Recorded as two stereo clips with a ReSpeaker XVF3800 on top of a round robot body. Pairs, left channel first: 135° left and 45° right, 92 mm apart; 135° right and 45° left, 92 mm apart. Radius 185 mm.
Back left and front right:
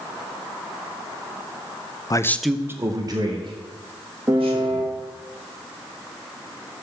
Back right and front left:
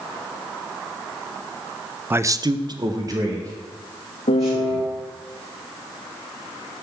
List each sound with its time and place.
2.1 s a man speaking: 105° left, 0.7 m; by 4.9 s 15° right, 3.5 m
4.3 s a piano: 115° right, 0.6 m